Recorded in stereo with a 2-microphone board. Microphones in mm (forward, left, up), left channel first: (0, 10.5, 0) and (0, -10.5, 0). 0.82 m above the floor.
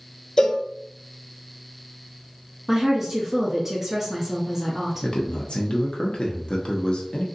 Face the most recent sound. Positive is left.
turn(degrees=55)  # may be behind; listen again after turning